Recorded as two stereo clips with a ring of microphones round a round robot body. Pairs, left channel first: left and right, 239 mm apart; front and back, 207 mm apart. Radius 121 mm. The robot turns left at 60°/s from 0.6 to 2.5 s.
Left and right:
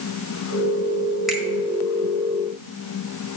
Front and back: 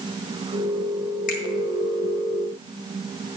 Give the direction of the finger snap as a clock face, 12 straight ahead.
12 o'clock.